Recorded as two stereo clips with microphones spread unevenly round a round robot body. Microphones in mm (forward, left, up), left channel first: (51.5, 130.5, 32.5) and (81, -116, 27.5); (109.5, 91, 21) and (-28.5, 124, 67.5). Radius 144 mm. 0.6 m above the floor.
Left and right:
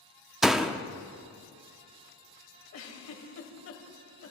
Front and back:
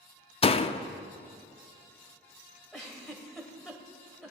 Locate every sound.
0.4 s a door slam: 5° left, 0.7 m
2.7 s a giggle: 70° left, 2.5 m